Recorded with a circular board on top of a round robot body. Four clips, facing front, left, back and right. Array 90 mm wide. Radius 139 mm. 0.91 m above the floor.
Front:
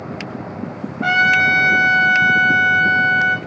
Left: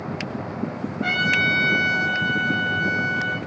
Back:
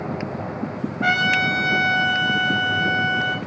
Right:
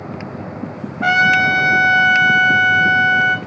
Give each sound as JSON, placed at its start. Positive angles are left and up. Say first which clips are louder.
{"t": 1.0, "sound": "a trumpet", "louder": "right 9 dB, front 5 dB", "azimuth_deg": -95, "distance_m": 1.6}